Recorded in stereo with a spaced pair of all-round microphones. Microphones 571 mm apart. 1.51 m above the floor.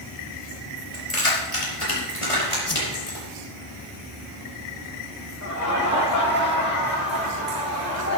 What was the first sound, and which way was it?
Keys jangling, 60° left (ahead or behind).